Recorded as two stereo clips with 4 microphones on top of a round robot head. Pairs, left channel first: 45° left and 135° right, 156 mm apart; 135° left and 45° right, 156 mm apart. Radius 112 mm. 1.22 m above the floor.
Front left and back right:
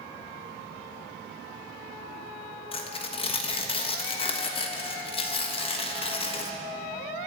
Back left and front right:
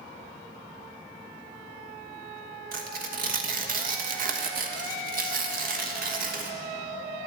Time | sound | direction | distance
2.7 | tearing paper | 10° right | 1.3 m